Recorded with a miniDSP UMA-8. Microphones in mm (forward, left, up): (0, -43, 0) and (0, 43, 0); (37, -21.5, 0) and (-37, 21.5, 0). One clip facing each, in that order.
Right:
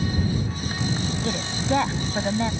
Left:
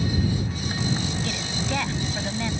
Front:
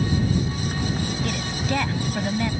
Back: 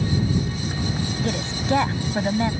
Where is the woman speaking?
150° right.